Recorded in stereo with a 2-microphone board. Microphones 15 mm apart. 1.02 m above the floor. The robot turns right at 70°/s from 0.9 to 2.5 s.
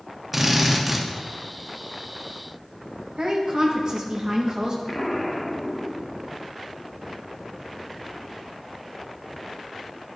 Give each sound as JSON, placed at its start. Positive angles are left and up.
{"t": 0.3, "sound": "a drill", "side_deg": -10, "distance_m": 0.9}
{"t": 3.2, "sound": "a woman speaking", "side_deg": -55, "distance_m": 1.3}
{"t": 4.9, "sound": "an explosion", "side_deg": 25, "distance_m": 0.8}